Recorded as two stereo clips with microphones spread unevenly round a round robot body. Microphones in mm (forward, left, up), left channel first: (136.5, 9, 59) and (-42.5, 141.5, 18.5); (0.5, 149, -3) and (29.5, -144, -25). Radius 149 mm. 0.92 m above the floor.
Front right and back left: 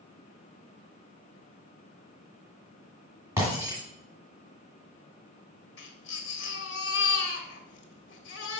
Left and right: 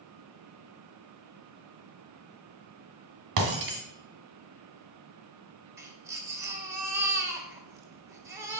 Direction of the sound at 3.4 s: 130° right.